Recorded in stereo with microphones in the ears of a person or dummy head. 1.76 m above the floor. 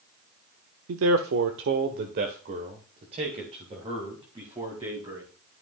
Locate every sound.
0.9 s a man speaking: 70° right (ahead or behind), 0.7 m; by 5.3 s 25° right (ahead or behind), 2.5 m